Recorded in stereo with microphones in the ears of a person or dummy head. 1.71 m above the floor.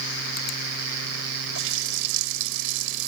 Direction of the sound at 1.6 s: 80° right.